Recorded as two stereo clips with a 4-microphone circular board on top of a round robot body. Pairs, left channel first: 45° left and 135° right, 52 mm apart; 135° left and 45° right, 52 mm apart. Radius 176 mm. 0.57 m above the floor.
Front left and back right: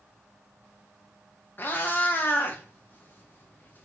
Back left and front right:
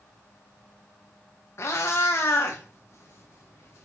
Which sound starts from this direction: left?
A cat meowing, at 1.6 s.